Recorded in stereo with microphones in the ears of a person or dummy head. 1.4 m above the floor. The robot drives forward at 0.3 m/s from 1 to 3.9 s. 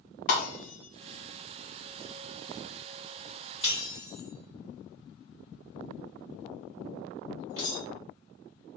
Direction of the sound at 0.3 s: 30° left (ahead or behind).